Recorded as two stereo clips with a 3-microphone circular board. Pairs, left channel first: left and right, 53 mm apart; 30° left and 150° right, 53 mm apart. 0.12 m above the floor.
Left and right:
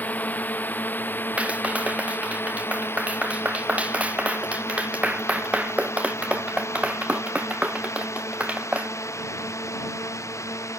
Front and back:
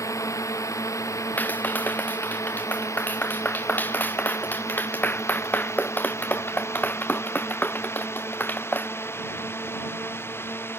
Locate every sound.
0.0 s a drone: 35° left; by 10.8 s 70° left
1.4 s a clap: 25° right